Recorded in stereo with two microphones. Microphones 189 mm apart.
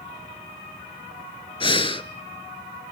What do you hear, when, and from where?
1.6 s breathing: 30° left (ahead or behind), 0.6 m